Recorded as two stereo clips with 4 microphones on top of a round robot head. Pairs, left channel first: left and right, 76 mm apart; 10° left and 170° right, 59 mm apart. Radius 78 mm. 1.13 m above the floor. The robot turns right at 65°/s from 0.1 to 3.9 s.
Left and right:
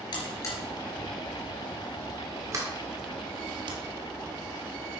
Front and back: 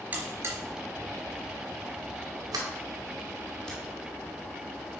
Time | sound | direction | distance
0.1 | a buzzer | 130° left | 3 m
2.5 | a sliding door | 150° right | 1.9 m